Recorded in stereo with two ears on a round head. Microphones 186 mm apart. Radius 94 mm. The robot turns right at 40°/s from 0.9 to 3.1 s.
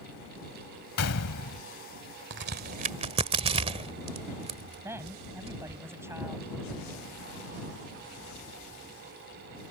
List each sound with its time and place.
1.0 s a gunshot: 70° left (ahead or behind); by 1.6 s 75° left (ahead or behind)
2.3 s a crack: 55° right (ahead or behind); by 5.8 s 25° right (ahead or behind)
4.8 s a woman speaking: 10° right (ahead or behind)